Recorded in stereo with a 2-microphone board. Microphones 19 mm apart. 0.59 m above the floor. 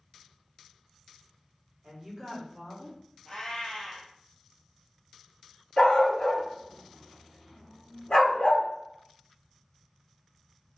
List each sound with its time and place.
1.8 s a woman speaking: 45° right (ahead or behind), 1.3 m; by 3.0 s 25° left (ahead or behind), 1.4 m
3.2 s a cat meowing: 40° left (ahead or behind), 2.0 m
5.8 s a dog barking: 75° left (ahead or behind), 1.3 m